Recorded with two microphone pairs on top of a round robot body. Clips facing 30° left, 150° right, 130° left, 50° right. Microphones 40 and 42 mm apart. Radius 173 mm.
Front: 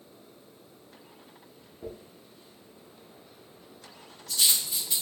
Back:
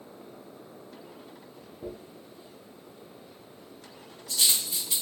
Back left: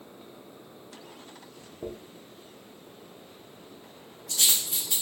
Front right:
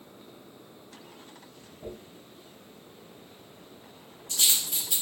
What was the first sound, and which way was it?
A dropped coin, 140° left.